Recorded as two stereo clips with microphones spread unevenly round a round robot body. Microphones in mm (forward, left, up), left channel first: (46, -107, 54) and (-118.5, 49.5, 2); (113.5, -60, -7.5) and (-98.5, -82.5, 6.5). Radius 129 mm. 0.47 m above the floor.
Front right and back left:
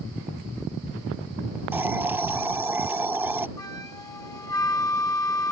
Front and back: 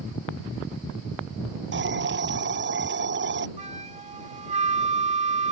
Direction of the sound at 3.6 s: 115° right.